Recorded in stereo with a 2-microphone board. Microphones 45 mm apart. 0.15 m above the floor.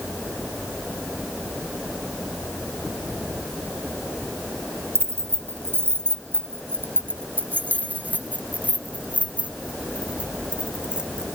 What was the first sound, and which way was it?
Keys jangling, 65° right (ahead or behind).